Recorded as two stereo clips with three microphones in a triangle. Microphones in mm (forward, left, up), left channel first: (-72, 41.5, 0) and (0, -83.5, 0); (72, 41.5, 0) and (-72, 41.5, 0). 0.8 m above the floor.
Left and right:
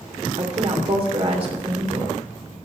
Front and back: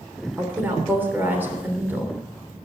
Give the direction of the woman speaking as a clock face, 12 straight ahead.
3 o'clock.